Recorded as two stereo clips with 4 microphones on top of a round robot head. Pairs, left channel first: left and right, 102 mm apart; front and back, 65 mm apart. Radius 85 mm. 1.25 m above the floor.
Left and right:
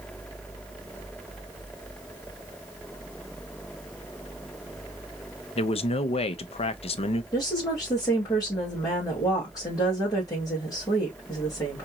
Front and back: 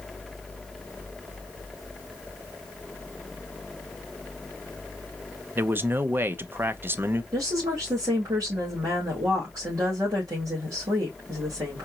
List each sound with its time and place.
5.5 s a man speaking: 120° left, 0.7 m
7.3 s a woman speaking: 145° left, 2.5 m